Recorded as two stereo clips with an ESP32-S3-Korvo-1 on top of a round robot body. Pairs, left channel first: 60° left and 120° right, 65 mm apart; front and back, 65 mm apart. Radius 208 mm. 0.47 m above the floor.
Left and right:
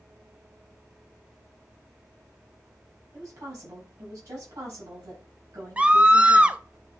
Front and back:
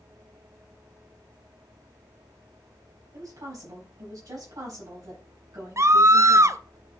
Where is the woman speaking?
150° right, 6.5 m.